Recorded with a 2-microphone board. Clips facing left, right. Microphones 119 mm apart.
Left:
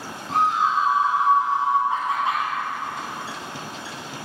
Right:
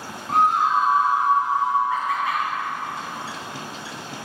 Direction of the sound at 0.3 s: 55° right (ahead or behind).